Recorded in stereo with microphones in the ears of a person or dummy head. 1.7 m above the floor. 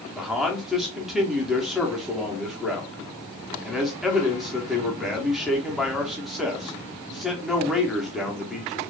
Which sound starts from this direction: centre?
A man speaking, at 0.1 s.